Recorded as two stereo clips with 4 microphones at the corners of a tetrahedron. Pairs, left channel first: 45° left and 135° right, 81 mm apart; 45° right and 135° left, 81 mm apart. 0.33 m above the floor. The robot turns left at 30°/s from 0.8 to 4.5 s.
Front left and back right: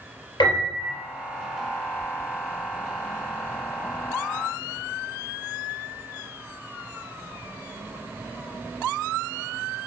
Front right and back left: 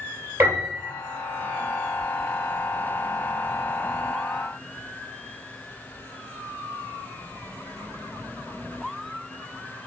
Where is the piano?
70° left, 2.0 m; by 1.0 s 65° left, 2.0 m.